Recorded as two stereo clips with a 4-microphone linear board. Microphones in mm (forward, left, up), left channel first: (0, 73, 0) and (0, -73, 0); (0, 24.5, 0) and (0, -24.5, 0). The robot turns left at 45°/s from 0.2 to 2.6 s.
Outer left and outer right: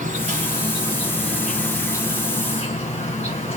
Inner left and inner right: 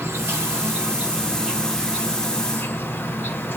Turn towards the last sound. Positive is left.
turn(degrees=130)